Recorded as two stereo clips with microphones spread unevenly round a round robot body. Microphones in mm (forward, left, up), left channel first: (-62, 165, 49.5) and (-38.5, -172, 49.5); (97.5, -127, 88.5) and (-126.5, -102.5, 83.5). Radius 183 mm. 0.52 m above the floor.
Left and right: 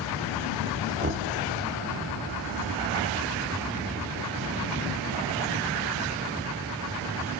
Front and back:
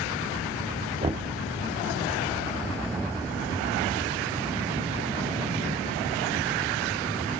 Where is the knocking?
130° right, 1.3 m.